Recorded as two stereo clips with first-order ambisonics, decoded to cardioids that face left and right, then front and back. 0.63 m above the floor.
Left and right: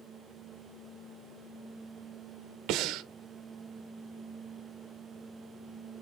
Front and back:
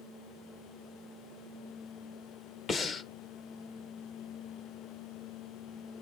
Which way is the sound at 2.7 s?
65° right.